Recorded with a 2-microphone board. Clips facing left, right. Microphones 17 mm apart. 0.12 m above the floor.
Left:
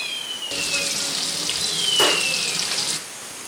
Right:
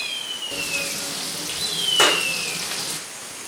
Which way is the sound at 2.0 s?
50° right (ahead or behind).